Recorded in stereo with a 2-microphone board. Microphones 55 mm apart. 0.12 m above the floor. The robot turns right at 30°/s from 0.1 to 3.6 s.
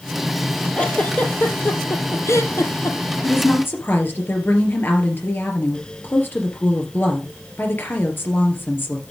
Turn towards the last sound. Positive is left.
turn(degrees=40)  # may be behind; listen again after turning